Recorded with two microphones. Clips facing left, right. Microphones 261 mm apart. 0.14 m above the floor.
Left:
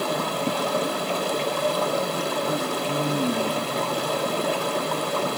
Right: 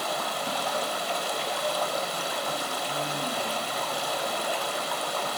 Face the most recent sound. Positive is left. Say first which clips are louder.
# left 8 dB
turn(degrees=55)  # may be behind; listen again after turning